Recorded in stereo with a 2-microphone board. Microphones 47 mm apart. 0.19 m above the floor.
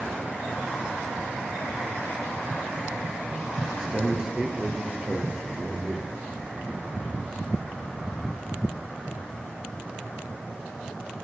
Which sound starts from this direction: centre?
A man speaking, at 3.7 s.